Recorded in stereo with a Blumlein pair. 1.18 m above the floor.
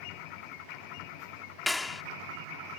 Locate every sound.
1.7 s a clap: 10° left